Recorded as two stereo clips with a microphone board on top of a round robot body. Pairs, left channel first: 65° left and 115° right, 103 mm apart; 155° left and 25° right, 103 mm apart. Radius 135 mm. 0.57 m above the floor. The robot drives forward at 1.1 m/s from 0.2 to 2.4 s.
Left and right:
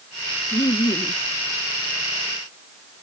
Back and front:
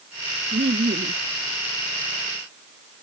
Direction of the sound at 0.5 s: 5° left.